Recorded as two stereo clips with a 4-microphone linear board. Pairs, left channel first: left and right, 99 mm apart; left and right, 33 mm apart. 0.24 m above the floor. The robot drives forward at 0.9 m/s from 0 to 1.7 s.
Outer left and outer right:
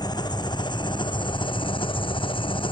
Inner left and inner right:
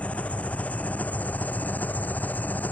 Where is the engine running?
45° left (ahead or behind); by 2.7 s 60° left (ahead or behind).